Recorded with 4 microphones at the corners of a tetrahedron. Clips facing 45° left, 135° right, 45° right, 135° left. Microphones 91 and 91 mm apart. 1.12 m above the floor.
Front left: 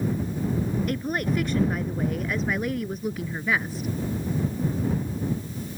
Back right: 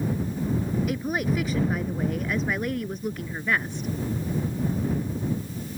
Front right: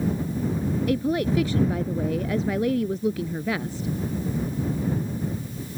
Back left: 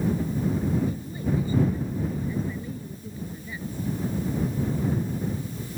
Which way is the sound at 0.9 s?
50° right.